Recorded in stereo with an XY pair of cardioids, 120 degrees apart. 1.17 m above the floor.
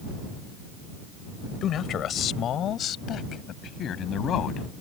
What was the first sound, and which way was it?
A man speaking, 55° left.